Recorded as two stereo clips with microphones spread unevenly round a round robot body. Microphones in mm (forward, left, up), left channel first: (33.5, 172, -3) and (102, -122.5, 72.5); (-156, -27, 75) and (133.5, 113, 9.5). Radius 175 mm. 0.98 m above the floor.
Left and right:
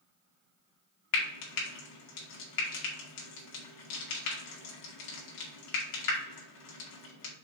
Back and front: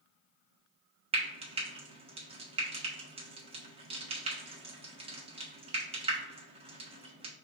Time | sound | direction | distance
1.1 | frying | 100° left | 1.5 m